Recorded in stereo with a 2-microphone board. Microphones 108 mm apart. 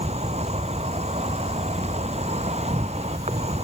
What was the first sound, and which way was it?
An insect, 80° right.